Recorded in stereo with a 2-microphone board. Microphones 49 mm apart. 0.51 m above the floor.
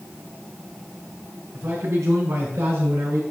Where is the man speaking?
80° right, 5 m; by 3.2 s 65° right (ahead or behind), 5 m.